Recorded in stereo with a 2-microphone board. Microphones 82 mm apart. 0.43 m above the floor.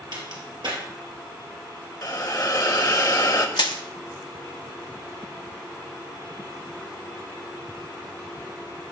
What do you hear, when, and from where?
0.1 s a crack: 70° right (ahead or behind), 2.5 m
2.0 s a hiss: 50° left (ahead or behind), 0.8 m
3.6 s crushing: 75° left (ahead or behind), 0.6 m